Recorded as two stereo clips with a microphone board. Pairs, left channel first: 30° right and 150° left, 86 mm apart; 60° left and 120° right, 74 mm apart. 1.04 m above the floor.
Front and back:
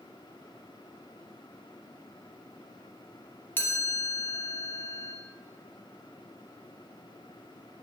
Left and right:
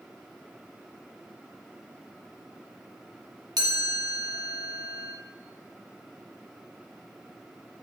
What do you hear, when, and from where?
3.6 s a chime: 95° right, 2 m